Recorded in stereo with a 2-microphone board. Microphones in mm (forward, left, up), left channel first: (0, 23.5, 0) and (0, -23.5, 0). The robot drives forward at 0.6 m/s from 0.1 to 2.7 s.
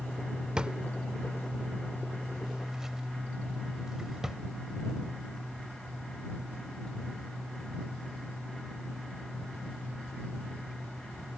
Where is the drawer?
20° right (ahead or behind); by 4.4 s 10° right (ahead or behind).